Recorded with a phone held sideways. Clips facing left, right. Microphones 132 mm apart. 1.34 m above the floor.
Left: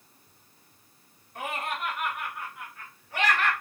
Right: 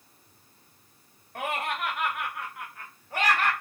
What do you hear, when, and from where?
1.4 s laughter: 60° right (ahead or behind), 1.3 m; by 3.5 s 35° right (ahead or behind), 1.5 m